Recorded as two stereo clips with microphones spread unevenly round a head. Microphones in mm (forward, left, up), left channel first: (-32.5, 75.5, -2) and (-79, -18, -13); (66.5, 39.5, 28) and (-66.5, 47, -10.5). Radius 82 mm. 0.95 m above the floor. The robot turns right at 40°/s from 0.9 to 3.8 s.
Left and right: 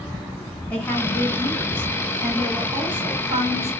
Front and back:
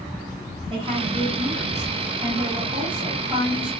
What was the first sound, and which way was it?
A woman speaking, 140° left.